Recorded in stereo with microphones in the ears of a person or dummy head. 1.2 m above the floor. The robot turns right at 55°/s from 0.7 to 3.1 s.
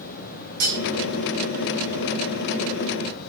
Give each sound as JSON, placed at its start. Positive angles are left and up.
{"t": 0.6, "sound": "cutlery clinking", "side_deg": -65, "distance_m": 1.2}